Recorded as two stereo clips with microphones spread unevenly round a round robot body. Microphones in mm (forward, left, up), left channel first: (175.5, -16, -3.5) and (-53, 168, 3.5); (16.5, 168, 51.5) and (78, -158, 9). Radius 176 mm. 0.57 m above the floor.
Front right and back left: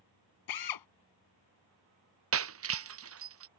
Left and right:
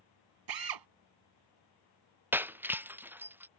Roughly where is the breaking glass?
Behind.